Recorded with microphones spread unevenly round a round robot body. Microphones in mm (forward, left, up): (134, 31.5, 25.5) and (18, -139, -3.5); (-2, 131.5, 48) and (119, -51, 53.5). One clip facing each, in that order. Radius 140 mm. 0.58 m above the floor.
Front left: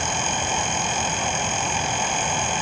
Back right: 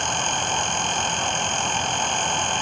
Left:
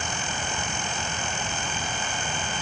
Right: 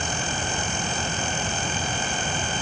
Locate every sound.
Only background noise.